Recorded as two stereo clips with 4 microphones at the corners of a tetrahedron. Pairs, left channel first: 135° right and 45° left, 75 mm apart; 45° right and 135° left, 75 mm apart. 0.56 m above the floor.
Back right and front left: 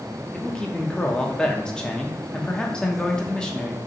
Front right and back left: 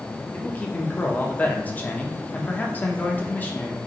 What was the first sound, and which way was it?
A man speaking, 70° right.